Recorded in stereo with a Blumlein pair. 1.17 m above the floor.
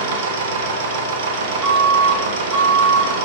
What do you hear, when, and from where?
0.0 s a machine running: 55° right, 0.8 m
1.6 s an alarm: 15° right, 1.5 m